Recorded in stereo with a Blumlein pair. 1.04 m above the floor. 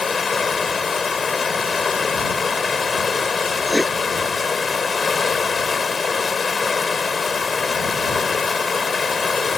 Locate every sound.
0.0 s running water: 20° left
3.7 s writing: 5° left